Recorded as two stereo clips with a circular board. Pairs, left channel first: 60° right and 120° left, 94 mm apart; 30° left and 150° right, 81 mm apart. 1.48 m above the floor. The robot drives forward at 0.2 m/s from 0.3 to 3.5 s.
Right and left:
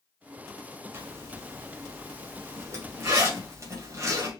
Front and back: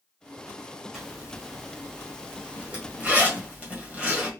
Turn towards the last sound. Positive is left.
turn(degrees=150)